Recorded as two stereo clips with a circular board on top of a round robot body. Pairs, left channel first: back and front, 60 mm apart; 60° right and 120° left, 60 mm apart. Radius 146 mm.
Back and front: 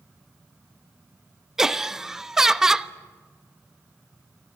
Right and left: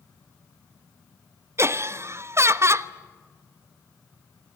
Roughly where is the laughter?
Left.